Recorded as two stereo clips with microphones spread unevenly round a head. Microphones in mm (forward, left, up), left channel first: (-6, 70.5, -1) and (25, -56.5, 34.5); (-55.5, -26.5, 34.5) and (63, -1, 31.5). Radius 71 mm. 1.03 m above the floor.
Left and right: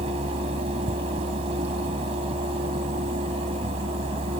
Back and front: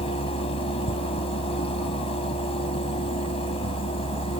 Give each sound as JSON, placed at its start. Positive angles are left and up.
{"t": 0.0, "sound": "a fan", "azimuth_deg": -125}